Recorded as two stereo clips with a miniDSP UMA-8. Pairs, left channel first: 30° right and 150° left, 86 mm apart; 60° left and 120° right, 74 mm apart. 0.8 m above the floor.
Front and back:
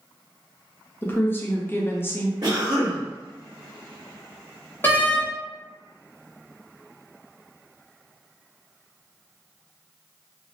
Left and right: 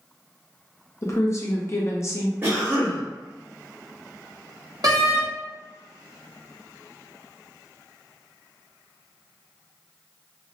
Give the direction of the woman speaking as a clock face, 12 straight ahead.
11 o'clock.